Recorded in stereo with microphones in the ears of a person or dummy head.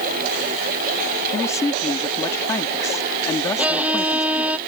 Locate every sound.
1.3 s a man speaking: 15° left (ahead or behind)
3.6 s a violin: 10° right (ahead or behind)